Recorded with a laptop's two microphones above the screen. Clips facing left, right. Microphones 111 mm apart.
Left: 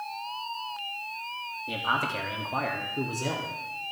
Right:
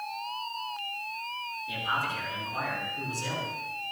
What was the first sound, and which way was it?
A man speaking, 60° left (ahead or behind).